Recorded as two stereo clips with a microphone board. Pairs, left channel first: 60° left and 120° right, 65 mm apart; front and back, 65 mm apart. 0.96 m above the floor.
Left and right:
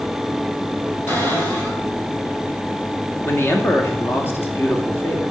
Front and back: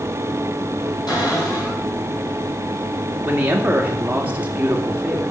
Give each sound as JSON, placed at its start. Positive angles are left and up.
{"t": 1.1, "sound": "a cupboard door", "azimuth_deg": 5, "distance_m": 5.0}
{"t": 3.2, "sound": "a man speaking", "azimuth_deg": 115, "distance_m": 2.0}